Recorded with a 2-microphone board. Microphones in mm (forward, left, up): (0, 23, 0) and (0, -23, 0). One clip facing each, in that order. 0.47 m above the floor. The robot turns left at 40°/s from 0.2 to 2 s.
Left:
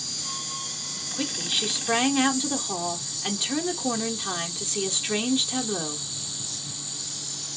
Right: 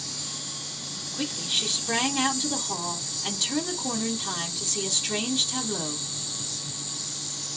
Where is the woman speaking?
20° left (ahead or behind), 1.1 m.